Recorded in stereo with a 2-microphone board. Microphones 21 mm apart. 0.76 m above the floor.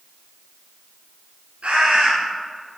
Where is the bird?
85° right, 4.5 m.